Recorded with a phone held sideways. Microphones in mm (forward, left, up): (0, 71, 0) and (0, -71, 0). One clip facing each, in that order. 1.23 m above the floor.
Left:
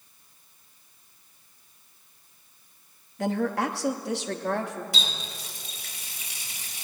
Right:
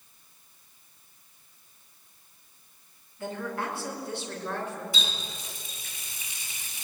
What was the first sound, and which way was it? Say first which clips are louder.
A woman speaking: left 7 dB; 75° left (ahead or behind).